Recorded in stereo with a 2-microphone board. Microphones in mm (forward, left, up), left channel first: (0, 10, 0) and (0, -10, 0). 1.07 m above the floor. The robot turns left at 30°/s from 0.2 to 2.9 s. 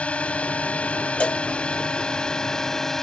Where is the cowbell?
70° left (ahead or behind); by 1.4 s 75° left (ahead or behind).